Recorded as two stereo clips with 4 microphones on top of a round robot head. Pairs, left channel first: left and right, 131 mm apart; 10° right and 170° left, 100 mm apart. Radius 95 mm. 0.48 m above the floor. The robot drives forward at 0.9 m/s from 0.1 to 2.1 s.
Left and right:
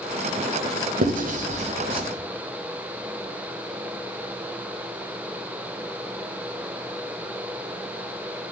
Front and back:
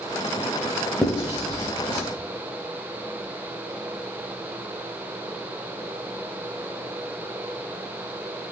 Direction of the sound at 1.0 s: 95° right.